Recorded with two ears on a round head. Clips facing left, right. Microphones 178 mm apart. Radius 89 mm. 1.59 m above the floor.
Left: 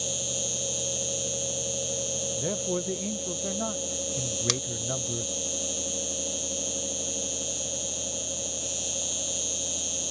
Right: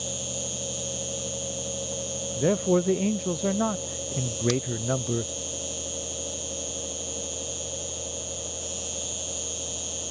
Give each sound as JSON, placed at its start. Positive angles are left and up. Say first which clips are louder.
{"t": 0.0, "sound": "an insect", "louder": "even", "side_deg": 20}
{"t": 2.4, "sound": "a man speaking", "louder": "right 9 dB", "side_deg": -70}
{"t": 4.5, "sound": "scissors", "louder": "right 9 dB", "side_deg": 65}